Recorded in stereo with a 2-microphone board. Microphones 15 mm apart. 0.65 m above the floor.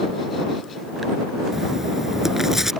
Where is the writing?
25° right (ahead or behind).